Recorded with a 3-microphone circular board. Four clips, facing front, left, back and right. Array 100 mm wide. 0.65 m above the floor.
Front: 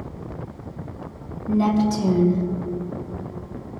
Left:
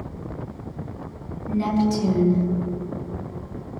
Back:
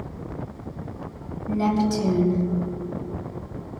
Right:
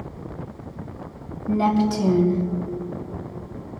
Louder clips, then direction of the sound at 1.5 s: Right 2 dB, front 3 dB; 85° right.